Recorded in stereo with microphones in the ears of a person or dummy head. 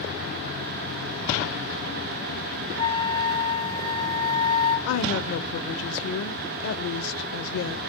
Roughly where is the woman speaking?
Left.